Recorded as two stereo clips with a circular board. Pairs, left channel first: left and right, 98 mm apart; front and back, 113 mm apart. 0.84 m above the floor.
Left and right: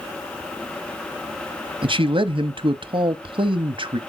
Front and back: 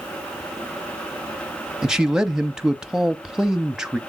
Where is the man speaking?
95° right, 1.1 m.